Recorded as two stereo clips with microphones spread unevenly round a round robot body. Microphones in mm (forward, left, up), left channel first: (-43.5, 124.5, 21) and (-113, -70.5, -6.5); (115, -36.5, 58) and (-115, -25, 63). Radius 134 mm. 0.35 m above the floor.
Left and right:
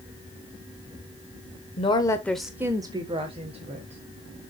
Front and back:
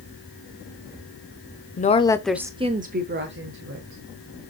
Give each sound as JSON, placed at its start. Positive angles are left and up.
{"t": 1.8, "sound": "a woman speaking", "azimuth_deg": 10, "distance_m": 1.0}